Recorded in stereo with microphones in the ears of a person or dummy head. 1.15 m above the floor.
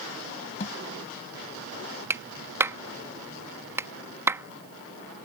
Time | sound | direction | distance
0.6 | a thud | 40° left (ahead or behind) | ?
2.1 | a clap | 10° right (ahead or behind) | ?